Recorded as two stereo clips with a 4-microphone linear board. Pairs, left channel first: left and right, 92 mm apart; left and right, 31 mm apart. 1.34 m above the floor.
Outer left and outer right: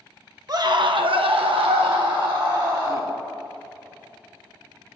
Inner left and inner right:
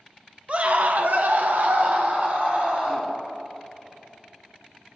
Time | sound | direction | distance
0.5 | a scream | 45° right (ahead or behind) | 1.1 m